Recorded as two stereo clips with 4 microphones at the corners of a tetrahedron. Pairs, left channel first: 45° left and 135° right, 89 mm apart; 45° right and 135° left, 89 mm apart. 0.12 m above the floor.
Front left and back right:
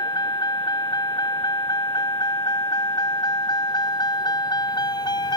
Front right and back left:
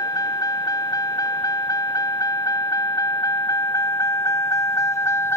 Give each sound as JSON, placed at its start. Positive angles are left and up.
{"t": 0.0, "sound": "a vehicle", "azimuth_deg": 5}